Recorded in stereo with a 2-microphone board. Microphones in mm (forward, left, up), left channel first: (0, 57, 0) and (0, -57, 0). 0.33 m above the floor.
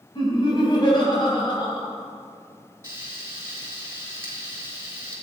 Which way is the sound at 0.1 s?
45° left (ahead or behind).